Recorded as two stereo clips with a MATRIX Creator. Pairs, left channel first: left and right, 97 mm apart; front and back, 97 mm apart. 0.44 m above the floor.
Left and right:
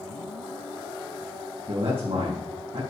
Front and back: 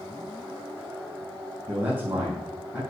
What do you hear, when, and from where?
1.7 s a man speaking: 100° right, 3 m